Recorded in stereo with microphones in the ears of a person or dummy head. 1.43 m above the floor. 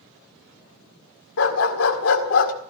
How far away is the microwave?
I don't hear a microwave.